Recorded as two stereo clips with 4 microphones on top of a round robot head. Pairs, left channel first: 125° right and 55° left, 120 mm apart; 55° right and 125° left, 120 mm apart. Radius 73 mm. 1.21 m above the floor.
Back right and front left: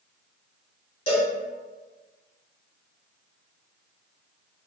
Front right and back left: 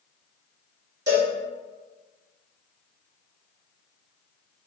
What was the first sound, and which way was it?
A cowbell, 170° right.